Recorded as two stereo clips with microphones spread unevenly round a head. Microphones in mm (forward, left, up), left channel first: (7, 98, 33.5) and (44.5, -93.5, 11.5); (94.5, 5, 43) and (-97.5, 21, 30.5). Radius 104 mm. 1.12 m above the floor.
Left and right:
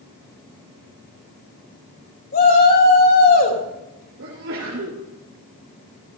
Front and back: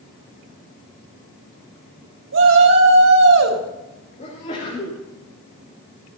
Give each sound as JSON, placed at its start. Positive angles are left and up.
{"t": 2.3, "sound": "a shout", "azimuth_deg": 155, "distance_m": 4.5}
{"t": 4.2, "sound": "a sneeze", "azimuth_deg": -60, "distance_m": 3.5}